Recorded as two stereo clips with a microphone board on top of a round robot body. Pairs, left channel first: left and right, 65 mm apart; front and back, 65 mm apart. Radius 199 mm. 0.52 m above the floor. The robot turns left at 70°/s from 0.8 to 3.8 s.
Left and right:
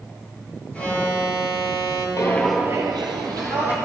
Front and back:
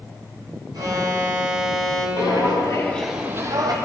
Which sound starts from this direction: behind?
An alarm, at 0.7 s.